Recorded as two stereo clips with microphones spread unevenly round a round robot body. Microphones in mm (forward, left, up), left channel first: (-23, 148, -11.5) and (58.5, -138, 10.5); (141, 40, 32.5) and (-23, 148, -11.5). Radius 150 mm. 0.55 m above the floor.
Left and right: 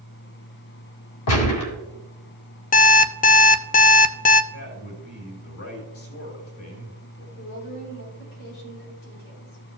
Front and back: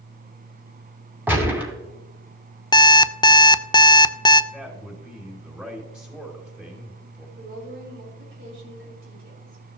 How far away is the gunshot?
About 2.5 m.